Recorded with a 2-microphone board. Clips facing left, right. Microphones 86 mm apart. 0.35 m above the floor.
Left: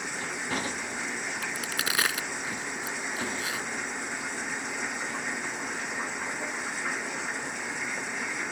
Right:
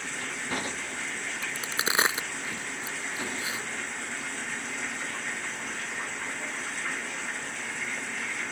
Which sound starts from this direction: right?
A crack, at 1.4 s.